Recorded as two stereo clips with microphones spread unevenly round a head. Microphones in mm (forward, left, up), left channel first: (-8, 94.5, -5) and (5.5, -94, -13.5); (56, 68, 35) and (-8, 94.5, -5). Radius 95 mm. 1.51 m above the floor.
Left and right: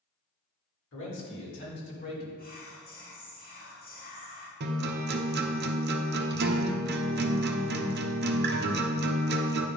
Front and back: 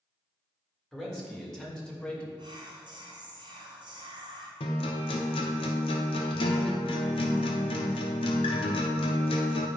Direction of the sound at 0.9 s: 65° left.